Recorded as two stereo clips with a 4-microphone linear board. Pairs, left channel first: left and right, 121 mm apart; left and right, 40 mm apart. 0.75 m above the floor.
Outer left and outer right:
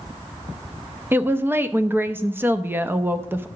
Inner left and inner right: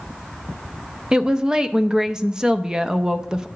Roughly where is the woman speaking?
Centre.